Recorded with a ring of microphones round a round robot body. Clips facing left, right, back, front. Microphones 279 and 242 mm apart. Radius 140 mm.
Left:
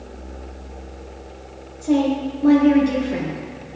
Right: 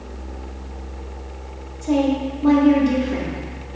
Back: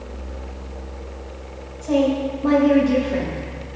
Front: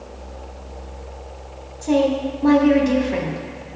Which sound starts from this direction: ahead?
A woman speaking, at 1.8 s.